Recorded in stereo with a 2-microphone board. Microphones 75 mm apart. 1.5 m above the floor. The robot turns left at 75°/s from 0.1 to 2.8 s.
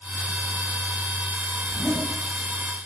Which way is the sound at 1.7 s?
175° right.